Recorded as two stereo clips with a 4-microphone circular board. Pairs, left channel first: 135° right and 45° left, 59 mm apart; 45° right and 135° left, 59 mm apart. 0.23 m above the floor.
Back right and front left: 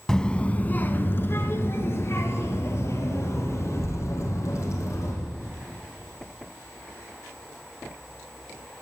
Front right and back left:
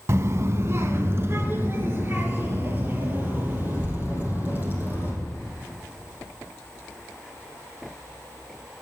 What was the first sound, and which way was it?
A child speaking, 150° left.